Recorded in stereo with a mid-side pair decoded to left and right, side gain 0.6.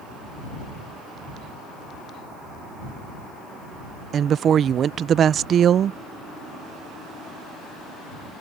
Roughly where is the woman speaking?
Ahead right.